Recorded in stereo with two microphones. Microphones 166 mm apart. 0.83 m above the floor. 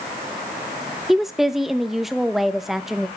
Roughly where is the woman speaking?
Centre.